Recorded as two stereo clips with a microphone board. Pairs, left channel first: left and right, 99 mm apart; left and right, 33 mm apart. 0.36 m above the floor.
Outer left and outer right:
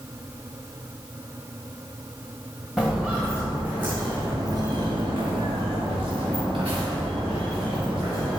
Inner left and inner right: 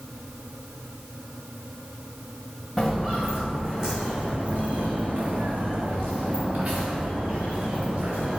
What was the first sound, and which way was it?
Footsteps, centre (ahead or behind).